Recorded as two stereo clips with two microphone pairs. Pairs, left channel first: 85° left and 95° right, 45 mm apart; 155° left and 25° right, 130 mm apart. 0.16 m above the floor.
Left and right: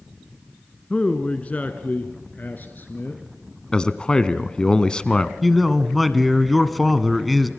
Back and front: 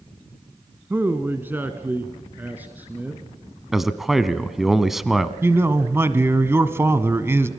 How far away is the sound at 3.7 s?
About 1.0 m.